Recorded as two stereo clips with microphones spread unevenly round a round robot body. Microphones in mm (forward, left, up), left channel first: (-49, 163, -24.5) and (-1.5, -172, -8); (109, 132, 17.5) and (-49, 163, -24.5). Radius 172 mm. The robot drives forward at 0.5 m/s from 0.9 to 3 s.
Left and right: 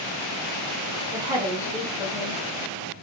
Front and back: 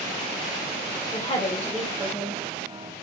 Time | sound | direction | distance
1.1 | a woman speaking | 5° right | 0.6 m